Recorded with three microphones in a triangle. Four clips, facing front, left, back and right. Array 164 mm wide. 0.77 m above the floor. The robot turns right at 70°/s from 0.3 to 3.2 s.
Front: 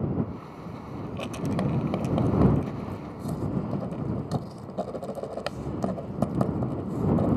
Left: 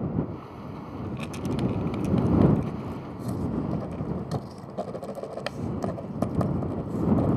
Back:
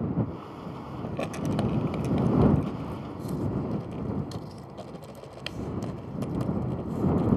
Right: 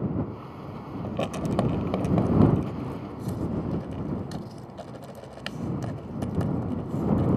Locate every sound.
1.0 s writing: 120° right; by 7.4 s 30° left